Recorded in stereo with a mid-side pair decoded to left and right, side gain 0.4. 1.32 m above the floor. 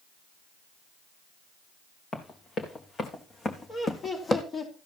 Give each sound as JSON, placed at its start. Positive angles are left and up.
{"t": 2.1, "sound": "running footsteps", "azimuth_deg": 55, "distance_m": 5.0}
{"t": 3.7, "sound": "laughter", "azimuth_deg": 45, "distance_m": 4.5}